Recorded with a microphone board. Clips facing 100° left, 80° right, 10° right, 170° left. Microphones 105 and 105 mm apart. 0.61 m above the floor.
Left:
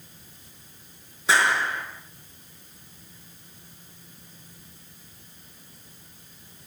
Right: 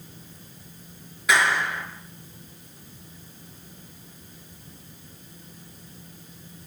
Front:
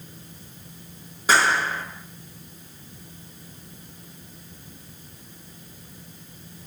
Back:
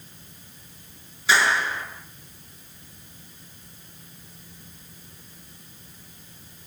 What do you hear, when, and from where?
1.3 s a clap: 40° left, 6.5 m